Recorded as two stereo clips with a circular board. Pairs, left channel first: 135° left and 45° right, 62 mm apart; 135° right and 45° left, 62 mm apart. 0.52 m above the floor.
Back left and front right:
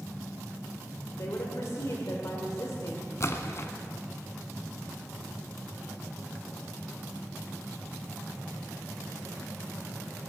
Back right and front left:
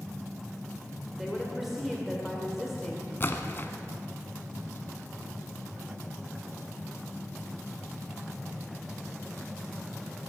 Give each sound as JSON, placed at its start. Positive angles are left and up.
{"t": 1.1, "sound": "a woman speaking", "azimuth_deg": 130, "distance_m": 2.0}
{"t": 3.2, "sound": "a splash", "azimuth_deg": 175, "distance_m": 1.1}